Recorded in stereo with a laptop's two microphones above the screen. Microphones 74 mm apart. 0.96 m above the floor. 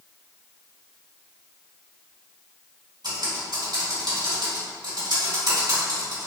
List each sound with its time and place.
3.0 s typing on a keyboard: 80° right, 1.8 m